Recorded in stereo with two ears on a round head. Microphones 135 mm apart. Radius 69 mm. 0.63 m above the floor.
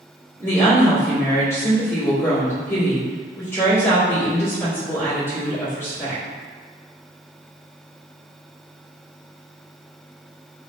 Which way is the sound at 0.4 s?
15° left (ahead or behind).